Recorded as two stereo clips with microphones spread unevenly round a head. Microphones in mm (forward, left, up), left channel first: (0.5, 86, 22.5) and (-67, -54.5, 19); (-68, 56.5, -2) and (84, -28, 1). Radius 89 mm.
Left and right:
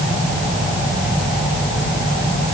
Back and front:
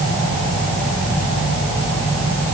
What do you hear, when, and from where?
Only background noise.